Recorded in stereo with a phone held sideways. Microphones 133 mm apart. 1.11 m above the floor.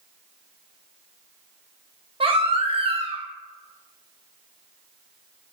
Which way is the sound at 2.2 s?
40° right (ahead or behind).